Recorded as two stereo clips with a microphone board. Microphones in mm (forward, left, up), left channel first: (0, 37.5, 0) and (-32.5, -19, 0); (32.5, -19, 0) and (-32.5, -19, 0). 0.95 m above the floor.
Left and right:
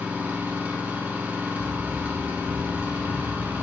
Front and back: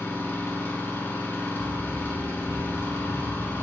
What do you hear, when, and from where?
0.0 s an engine running: 60° right, 1.3 m
1.6 s running footsteps: 60° left, 2.5 m